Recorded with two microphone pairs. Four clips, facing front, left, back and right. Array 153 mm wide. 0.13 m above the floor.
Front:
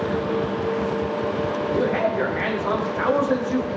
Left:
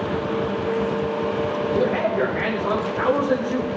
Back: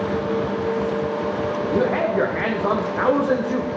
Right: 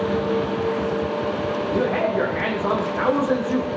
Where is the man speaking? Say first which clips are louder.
Even, back 2 dB; 155° right, 6 m.